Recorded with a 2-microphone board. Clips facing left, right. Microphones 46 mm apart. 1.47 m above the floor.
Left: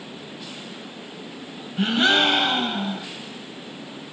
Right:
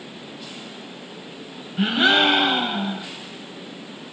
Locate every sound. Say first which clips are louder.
1.8 s a gasp: right 1 dB; 10° right (ahead or behind), 1.5 m